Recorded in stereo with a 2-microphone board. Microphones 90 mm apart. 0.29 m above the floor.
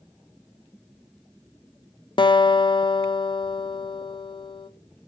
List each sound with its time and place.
2.2 s a guitar: 55° left (ahead or behind), 0.5 m